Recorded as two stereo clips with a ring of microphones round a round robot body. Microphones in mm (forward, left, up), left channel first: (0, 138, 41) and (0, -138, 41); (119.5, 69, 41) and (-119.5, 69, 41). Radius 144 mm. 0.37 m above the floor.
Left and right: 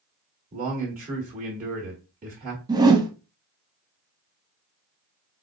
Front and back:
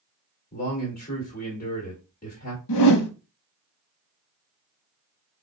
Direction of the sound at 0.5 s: 40° right.